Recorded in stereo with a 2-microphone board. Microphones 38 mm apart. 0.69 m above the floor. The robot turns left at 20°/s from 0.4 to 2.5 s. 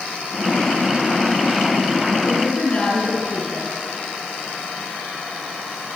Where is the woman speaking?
35° left (ahead or behind), 9 m; by 3.7 s 30° left (ahead or behind), 9 m.